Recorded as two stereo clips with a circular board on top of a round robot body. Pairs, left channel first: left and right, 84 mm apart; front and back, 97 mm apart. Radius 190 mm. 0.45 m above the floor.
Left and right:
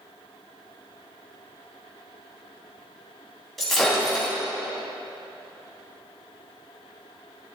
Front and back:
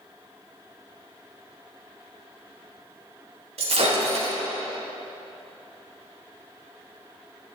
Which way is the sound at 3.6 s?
175° left.